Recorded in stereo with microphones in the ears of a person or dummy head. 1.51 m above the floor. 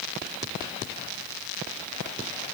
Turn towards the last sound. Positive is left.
No sound to turn to.